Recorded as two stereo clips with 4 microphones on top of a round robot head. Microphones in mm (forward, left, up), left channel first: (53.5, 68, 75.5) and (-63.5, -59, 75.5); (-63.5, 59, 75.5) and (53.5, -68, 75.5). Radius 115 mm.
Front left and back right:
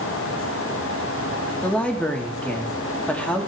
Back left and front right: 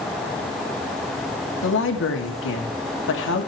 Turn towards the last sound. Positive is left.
turn(degrees=130)